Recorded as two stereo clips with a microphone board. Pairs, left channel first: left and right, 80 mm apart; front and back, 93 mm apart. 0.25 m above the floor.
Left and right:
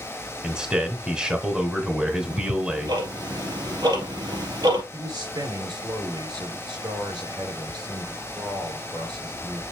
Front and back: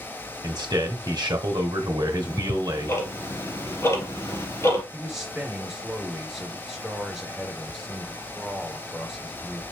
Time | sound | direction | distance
0.4 | a man speaking | 160° right | 1.7 m
2.1 | ticking | 60° right | 3 m
4.9 | a man speaking | 95° right | 4 m